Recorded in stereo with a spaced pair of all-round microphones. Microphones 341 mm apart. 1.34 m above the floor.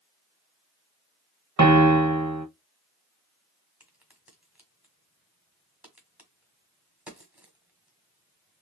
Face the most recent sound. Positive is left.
turn(degrees=-5)  # may be behind; listen again after turning